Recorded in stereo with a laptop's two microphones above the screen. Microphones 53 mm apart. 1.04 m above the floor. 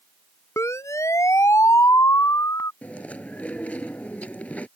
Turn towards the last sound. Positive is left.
turn(degrees=25)  # may be behind; listen again after turning